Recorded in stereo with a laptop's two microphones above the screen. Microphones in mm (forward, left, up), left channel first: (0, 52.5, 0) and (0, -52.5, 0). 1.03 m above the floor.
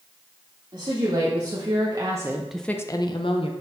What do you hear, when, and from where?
0.7 s a woman speaking: 55° right (ahead or behind), 2.5 m; by 3.5 s 60° left (ahead or behind), 1.1 m